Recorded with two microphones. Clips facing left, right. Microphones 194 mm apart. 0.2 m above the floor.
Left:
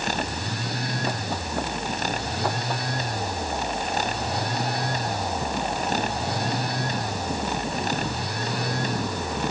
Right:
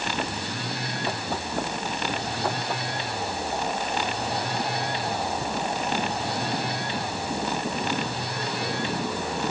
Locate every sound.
Only background noise.